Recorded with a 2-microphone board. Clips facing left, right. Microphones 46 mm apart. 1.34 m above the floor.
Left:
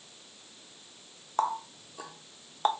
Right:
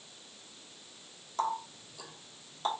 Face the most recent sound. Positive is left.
turn(degrees=45)  # may be behind; listen again after turning